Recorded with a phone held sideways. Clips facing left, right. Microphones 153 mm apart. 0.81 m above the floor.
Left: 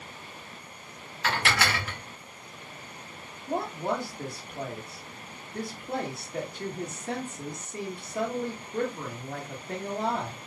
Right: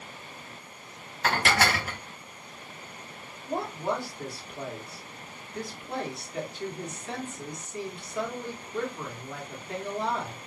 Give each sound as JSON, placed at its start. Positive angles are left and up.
{"t": 1.2, "sound": "dishes clattering", "side_deg": -45, "distance_m": 0.7}
{"t": 3.5, "sound": "a woman speaking", "side_deg": 50, "distance_m": 1.6}